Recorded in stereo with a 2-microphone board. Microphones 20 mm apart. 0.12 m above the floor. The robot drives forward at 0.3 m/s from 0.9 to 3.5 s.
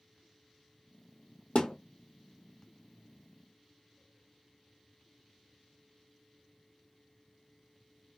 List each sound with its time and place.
1.6 s a thud: 65° left (ahead or behind), 1.3 m